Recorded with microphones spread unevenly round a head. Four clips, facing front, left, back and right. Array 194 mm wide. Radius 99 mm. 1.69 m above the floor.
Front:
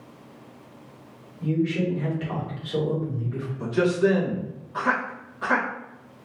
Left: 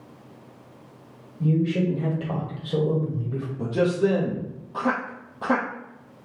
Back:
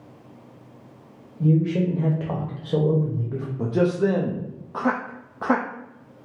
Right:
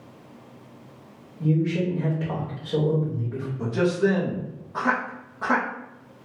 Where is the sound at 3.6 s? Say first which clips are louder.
Even, even; 165° left, 0.7 m.